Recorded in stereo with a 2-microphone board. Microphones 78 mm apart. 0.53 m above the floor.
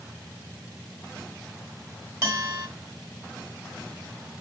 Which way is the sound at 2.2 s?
35° right (ahead or behind).